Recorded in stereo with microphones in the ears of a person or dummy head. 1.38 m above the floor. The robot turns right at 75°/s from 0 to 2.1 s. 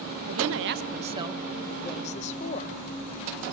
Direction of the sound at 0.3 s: 95° right.